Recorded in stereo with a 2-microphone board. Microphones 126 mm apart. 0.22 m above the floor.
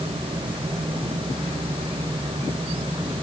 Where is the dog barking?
I don't hear a dog barking.